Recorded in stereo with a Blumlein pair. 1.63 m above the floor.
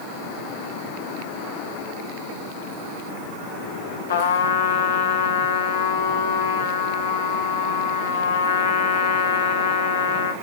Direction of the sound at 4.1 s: 60° left.